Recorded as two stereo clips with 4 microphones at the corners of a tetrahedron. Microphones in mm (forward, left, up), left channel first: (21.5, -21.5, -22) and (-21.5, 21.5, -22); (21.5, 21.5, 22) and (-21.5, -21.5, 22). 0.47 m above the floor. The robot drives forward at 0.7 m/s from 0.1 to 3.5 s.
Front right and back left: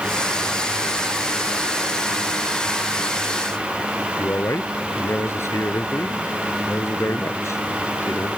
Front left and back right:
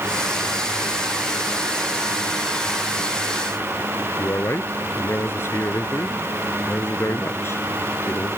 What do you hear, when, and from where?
4.2 s a man speaking: straight ahead